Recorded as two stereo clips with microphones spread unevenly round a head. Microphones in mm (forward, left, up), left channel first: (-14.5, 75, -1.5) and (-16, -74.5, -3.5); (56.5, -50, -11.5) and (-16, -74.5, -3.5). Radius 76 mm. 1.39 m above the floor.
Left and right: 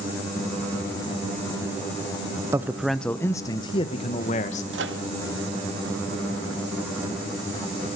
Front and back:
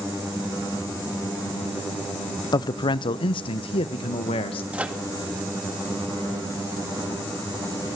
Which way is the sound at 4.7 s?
90° right.